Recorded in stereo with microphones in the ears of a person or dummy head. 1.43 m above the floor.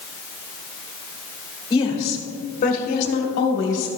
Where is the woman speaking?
25° left (ahead or behind), 1.9 m; by 3.9 s 75° left (ahead or behind), 1.5 m.